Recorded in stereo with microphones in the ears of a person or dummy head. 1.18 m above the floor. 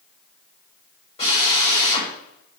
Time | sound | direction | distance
1.2 | a drill | 30° left (ahead or behind) | 5.5 m